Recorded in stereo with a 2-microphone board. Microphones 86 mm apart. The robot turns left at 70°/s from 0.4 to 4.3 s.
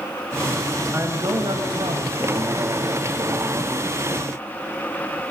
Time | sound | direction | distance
0.9 | a man speaking | 25° right | 3 m